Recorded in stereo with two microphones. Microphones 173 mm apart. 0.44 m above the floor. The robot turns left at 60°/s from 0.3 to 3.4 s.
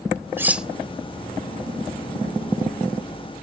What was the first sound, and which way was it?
Cutlery clinking, 15° right (ahead or behind).